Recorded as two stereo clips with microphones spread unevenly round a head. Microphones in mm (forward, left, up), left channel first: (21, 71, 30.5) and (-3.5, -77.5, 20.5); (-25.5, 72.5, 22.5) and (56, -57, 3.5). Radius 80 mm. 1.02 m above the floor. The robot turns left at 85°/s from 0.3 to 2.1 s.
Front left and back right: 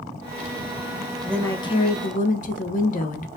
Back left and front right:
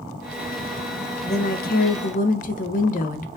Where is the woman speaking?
175° left, 1.0 m; by 3.4 s 100° left, 1.0 m.